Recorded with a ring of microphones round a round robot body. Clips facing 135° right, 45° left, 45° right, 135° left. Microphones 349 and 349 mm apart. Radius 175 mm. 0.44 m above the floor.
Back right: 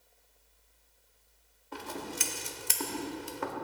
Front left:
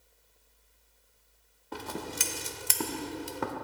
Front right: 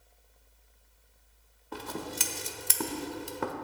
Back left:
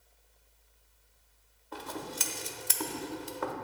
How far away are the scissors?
About 0.9 m.